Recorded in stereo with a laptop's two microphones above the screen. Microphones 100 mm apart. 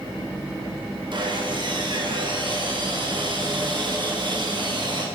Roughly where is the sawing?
Right.